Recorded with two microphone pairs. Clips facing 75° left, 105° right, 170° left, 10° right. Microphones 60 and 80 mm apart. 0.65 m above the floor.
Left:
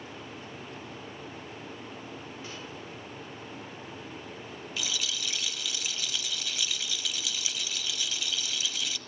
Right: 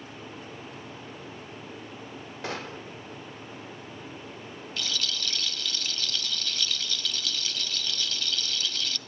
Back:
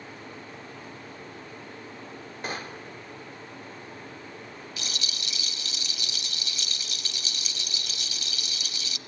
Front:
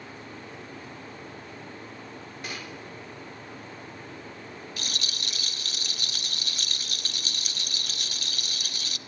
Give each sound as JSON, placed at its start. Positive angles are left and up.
{"t": 2.4, "sound": "a gunshot", "azimuth_deg": -140, "distance_m": 0.5}
{"t": 4.8, "sound": "a rattle", "azimuth_deg": 5, "distance_m": 0.6}